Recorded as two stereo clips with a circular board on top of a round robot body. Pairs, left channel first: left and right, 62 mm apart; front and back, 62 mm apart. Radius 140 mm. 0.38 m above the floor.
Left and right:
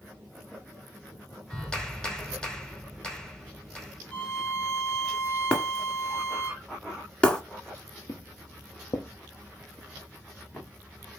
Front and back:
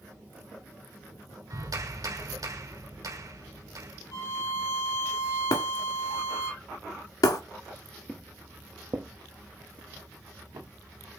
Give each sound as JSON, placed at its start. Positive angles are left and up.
{"t": 1.5, "sound": "a clap", "azimuth_deg": 170, "distance_m": 2.0}
{"t": 4.1, "sound": "a violin", "azimuth_deg": 20, "distance_m": 4.5}
{"t": 5.5, "sound": "breaking glass", "azimuth_deg": 15, "distance_m": 1.4}
{"t": 8.1, "sound": "footsteps", "azimuth_deg": 65, "distance_m": 0.6}